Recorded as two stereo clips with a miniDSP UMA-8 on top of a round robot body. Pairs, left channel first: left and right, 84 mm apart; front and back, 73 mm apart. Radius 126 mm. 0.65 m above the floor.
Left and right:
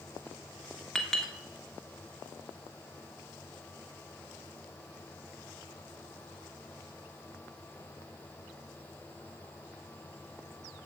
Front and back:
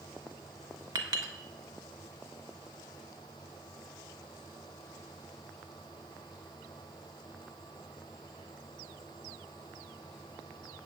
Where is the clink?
175° left, 1.3 m.